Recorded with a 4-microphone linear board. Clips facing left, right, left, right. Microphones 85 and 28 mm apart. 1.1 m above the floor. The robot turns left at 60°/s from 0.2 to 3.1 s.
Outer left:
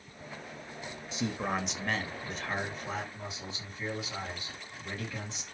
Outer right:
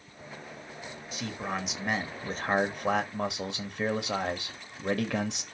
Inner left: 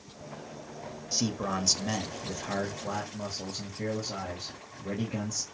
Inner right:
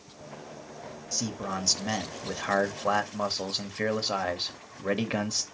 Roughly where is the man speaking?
Ahead left.